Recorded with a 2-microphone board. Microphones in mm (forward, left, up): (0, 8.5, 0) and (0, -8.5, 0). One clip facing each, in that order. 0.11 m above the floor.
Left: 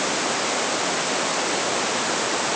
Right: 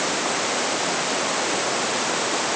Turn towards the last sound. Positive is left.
No sound to turn to.